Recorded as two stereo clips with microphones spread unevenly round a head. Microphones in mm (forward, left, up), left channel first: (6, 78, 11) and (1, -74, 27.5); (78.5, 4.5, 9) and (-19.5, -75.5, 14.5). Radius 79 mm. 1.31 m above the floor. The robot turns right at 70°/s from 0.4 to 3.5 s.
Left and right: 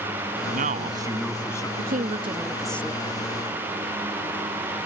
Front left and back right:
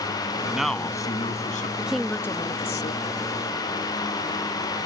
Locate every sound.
0.5 s a man speaking: 65° right; by 1.7 s 20° left
1.8 s a woman speaking: 65° right; by 3.2 s 35° left